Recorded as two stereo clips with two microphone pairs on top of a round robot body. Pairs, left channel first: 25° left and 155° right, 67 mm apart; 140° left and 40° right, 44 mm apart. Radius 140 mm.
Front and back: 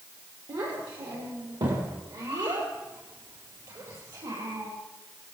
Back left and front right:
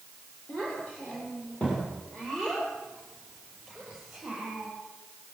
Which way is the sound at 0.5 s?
155° right.